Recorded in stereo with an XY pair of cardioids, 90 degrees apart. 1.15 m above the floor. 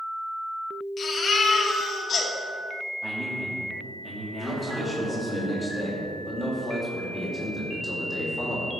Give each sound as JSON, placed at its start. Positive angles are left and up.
{"t": 1.0, "sound": "a baby crying", "azimuth_deg": 55, "distance_m": 2.0}
{"t": 3.0, "sound": "a man speaking", "azimuth_deg": -35, "distance_m": 2.5}
{"t": 4.4, "sound": "a man speaking", "azimuth_deg": 20, "distance_m": 3.0}